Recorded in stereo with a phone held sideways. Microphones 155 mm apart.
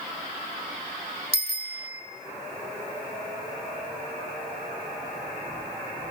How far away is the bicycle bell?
About 2.5 m.